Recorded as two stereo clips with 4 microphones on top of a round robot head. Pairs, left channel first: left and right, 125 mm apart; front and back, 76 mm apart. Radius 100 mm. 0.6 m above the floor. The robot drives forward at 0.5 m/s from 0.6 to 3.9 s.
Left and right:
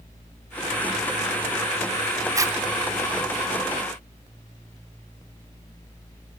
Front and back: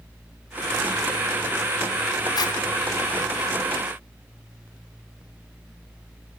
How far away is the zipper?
About 1.4 m.